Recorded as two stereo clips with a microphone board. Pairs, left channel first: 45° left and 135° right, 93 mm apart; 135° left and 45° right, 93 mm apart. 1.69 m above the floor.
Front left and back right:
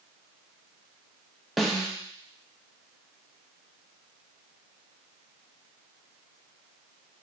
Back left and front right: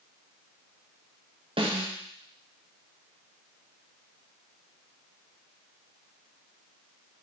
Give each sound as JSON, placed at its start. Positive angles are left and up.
{"t": 1.6, "sound": "a snare drum", "azimuth_deg": -45, "distance_m": 0.7}